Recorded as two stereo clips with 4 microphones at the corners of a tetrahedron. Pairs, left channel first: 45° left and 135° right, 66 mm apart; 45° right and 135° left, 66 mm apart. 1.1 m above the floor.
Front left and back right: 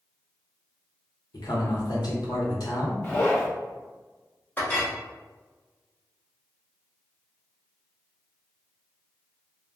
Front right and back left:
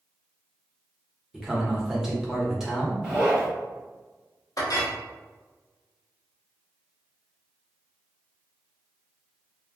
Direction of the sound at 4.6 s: 20° right.